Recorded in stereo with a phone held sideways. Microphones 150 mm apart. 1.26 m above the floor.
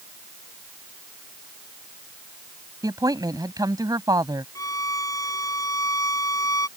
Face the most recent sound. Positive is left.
turn(degrees=25)  # may be behind; listen again after turning